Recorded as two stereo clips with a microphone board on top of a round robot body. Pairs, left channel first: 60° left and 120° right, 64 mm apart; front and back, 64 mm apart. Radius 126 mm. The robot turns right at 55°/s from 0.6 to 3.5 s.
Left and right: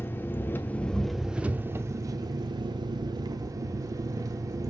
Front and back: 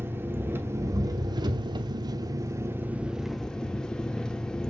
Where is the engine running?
120° left, 0.9 m; by 4.7 s 80° right, 0.9 m.